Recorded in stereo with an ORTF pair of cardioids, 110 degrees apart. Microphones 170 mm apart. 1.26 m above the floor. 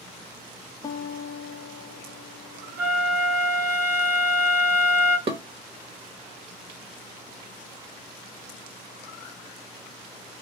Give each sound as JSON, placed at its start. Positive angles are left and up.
{"t": 0.8, "sound": "a guitar", "azimuth_deg": 20, "distance_m": 0.6}
{"t": 2.8, "sound": "a flute", "azimuth_deg": -70, "distance_m": 1.5}
{"t": 5.3, "sound": "dishes clattering", "azimuth_deg": -35, "distance_m": 1.1}